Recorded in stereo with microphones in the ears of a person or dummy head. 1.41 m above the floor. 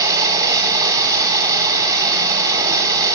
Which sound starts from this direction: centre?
Running water, at 0.0 s.